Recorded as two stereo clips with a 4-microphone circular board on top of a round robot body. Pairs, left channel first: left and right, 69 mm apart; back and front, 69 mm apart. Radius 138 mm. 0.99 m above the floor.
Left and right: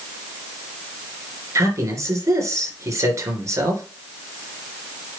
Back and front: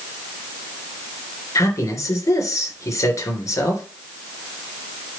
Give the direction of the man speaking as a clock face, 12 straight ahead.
4 o'clock.